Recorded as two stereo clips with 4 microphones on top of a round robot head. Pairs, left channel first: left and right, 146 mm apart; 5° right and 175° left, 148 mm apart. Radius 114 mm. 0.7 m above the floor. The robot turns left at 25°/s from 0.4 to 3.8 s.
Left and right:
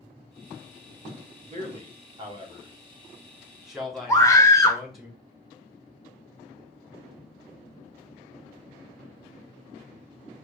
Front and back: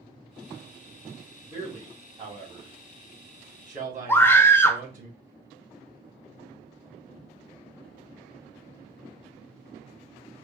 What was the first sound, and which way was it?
A man speaking, 125° right.